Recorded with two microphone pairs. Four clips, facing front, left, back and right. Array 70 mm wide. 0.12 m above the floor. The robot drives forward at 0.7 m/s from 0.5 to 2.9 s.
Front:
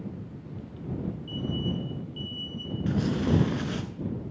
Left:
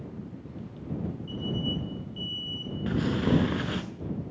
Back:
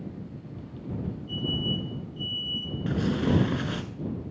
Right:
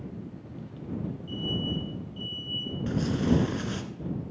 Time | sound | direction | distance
1.3 | an alarm | 45° left | 5.5 m
2.9 | tearing paper | 120° left | 1.0 m